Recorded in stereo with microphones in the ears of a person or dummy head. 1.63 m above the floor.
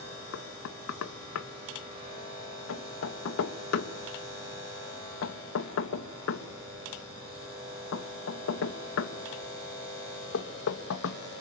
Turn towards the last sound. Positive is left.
turn(degrees=75)  # may be behind; listen again after turning